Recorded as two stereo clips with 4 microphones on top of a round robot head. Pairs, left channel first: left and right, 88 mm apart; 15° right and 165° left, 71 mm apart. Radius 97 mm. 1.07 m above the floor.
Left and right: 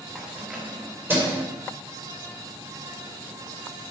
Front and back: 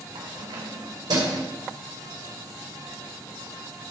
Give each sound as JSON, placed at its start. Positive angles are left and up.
{"t": 0.1, "sound": "keys jangling", "azimuth_deg": -170, "distance_m": 3.0}